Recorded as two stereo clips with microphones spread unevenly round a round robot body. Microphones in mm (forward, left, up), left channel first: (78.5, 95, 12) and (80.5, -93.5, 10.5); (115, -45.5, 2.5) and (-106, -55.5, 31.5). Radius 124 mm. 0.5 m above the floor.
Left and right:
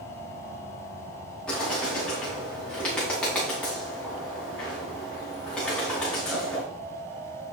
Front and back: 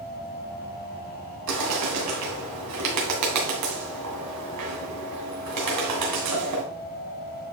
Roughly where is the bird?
Behind.